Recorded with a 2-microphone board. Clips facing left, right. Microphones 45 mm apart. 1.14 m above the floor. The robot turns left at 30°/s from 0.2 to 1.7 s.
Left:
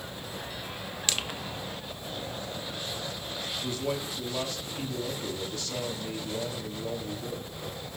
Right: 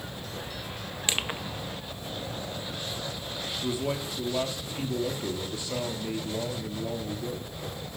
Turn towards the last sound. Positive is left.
turn(degrees=-15)  # may be behind; listen again after turning